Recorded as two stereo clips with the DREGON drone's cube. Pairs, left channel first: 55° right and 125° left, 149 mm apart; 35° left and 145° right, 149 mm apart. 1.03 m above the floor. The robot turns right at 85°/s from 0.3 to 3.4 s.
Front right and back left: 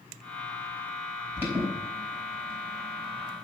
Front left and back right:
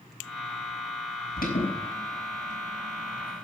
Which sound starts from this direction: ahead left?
An alarm, at 1.4 s.